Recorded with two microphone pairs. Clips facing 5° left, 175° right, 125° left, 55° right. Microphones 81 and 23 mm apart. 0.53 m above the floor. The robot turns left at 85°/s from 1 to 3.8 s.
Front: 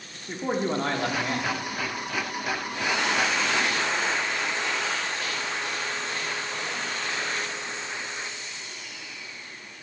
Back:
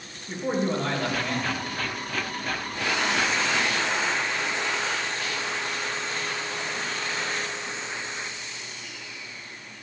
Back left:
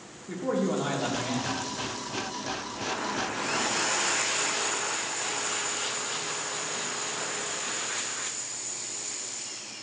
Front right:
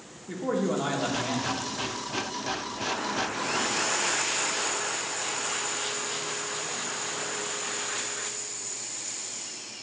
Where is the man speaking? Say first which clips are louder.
Back 1 dB, even; 20° left, 1.1 m; by 1.6 s 30° right, 1.1 m.